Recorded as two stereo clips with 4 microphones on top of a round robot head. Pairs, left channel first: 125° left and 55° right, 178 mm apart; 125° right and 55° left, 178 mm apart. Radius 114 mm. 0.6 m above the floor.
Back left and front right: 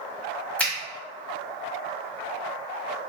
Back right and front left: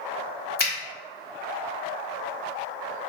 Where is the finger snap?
155° right, 1.0 m.